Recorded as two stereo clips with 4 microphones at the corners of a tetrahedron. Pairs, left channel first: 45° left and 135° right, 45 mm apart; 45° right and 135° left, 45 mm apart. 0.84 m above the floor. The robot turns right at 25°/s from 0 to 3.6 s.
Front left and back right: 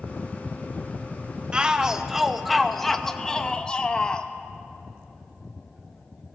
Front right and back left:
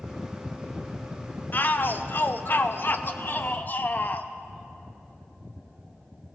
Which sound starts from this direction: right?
A shout, at 1.5 s.